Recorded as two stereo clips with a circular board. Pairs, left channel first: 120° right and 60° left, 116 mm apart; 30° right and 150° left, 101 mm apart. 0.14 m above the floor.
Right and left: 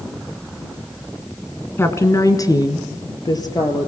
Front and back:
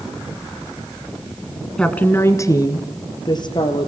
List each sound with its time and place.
1.8 s a woman speaking: 100° right, 1.4 m; by 3.9 s 65° right, 4 m